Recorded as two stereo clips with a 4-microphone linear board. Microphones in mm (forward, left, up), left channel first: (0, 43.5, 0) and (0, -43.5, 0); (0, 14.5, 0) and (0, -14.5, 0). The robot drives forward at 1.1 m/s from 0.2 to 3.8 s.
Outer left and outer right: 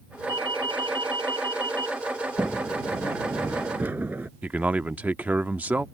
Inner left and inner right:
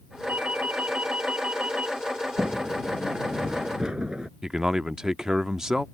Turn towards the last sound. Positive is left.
turn(degrees=-20)  # may be behind; listen again after turning